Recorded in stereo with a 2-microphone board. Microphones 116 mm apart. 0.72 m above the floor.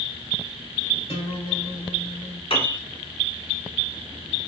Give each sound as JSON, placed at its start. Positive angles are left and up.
{"t": 1.1, "sound": "a guitar", "side_deg": 55, "distance_m": 2.5}
{"t": 2.5, "sound": "a piano", "side_deg": 50, "distance_m": 1.3}